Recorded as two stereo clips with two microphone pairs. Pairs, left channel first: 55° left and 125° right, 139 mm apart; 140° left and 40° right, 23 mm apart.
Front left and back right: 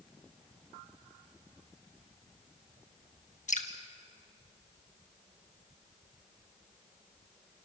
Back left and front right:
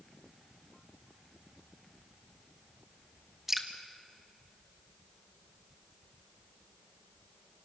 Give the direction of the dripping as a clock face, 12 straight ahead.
11 o'clock.